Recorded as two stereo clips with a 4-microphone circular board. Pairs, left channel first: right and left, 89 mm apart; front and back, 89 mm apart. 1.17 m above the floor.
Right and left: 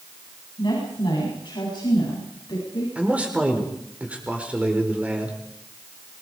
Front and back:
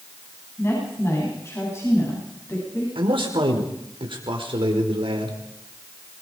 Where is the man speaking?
165° left, 5 m.